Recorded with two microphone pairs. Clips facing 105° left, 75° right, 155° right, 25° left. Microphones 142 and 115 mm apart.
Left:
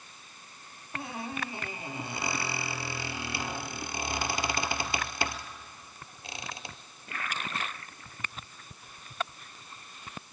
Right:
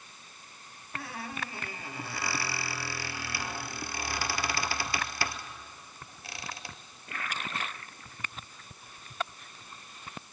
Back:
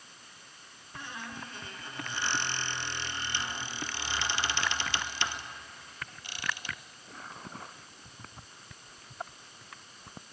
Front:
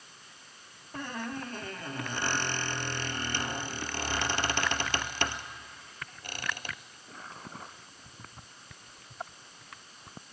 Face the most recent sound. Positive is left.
turn(degrees=40)